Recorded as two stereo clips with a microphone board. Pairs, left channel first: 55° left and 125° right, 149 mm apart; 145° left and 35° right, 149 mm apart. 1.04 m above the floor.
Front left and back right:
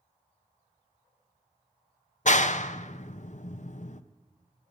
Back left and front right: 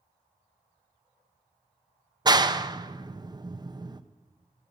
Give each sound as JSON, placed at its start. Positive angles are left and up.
{"t": 2.2, "sound": "a clap", "azimuth_deg": 25, "distance_m": 0.5}